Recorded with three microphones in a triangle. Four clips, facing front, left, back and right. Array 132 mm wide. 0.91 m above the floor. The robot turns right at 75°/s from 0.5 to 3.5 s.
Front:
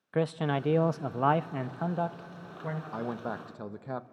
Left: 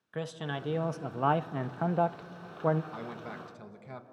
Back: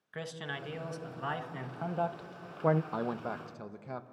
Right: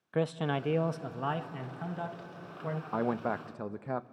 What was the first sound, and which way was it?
A man speaking, 30° right.